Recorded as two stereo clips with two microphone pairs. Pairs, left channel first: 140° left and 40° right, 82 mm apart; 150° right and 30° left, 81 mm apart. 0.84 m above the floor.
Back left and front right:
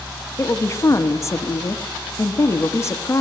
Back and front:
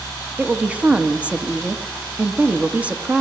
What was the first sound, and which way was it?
A woman speaking, 95° left.